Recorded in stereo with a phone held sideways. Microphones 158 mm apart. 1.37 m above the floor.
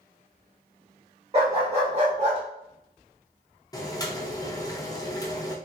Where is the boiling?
20° left (ahead or behind), 0.6 m.